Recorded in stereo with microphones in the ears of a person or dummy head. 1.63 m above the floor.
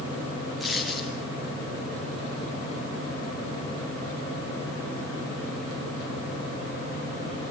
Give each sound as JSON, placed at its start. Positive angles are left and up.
{"t": 0.6, "sound": "a dropped coin", "side_deg": 5, "distance_m": 5.5}